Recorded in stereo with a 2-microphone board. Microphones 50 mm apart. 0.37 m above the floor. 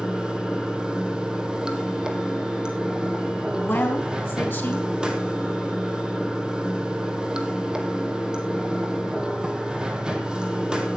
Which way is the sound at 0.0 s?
15° right (ahead or behind).